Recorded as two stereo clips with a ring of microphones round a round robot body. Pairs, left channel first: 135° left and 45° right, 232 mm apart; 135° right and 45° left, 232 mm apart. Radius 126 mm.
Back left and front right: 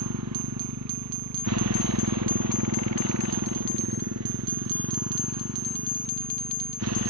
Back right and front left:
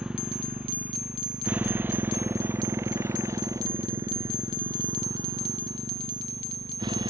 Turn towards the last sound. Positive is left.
turn(degrees=-25)